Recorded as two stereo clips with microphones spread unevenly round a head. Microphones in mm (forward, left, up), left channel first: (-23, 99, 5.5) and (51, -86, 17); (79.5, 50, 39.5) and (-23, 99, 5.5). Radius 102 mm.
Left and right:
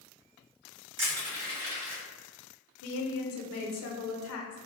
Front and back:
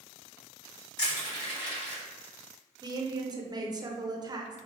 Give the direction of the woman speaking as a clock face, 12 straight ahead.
9 o'clock.